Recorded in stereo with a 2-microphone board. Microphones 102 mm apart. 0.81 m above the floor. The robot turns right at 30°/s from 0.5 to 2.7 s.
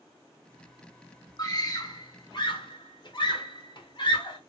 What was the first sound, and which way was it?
A scream, 35° left (ahead or behind).